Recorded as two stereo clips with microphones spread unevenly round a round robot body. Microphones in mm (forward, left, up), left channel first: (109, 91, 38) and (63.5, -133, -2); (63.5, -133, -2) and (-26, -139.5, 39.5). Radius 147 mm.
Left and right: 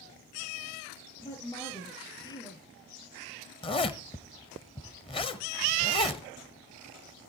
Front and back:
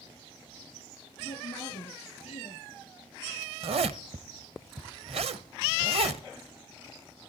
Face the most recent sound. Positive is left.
turn(degrees=150)